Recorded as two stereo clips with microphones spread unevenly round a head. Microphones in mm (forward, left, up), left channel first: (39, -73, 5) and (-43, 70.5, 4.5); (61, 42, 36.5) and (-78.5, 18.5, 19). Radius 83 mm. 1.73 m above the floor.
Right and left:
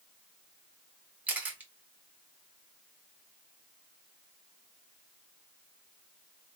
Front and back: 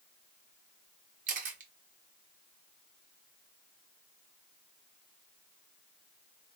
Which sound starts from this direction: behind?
A camera shutter, at 1.3 s.